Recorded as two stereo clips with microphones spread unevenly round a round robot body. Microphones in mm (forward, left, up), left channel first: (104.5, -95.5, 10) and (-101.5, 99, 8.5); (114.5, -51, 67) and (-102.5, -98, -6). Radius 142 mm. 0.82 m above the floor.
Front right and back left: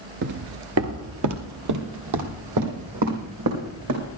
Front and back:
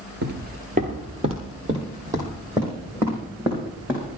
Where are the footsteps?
140° left, 0.8 m; by 4.1 s 105° left, 3.5 m.